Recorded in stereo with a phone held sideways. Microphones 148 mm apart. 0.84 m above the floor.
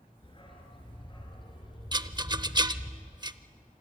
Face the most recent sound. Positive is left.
turn(degrees=-30)  # may be behind; listen again after turning